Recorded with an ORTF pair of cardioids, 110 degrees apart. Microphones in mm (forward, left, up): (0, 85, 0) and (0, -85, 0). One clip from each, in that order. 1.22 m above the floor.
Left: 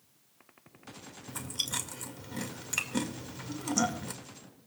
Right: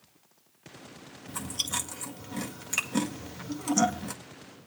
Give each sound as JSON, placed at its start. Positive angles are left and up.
{"t": 1.3, "sound": "chewing", "azimuth_deg": -10, "distance_m": 1.8}